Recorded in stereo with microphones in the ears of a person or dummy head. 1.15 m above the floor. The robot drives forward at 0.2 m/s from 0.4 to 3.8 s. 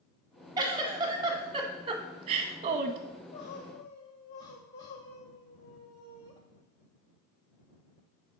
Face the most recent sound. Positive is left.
turn(degrees=20)  # may be behind; listen again after turning